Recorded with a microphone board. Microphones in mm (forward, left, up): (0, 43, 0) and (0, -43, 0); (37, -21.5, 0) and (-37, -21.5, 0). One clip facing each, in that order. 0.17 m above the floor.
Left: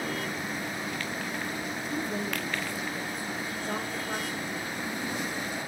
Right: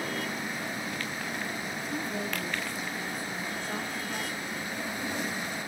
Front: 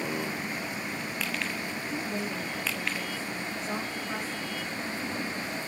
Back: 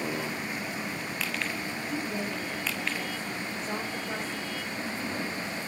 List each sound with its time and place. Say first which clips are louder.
1.9 s a woman speaking: left 2 dB, back 1 dB; 85° left, 3 m